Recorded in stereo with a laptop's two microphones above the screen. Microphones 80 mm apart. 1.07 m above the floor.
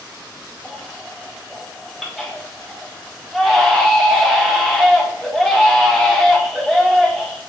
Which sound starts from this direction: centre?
A baby crying, at 0.6 s.